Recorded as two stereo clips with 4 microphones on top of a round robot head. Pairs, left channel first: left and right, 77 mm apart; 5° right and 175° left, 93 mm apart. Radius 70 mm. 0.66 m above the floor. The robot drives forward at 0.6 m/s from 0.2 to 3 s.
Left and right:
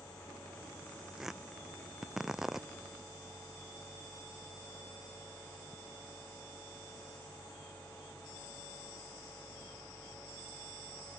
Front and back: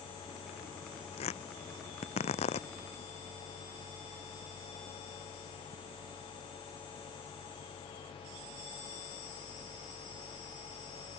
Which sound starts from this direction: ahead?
Tearing paper, at 1.2 s.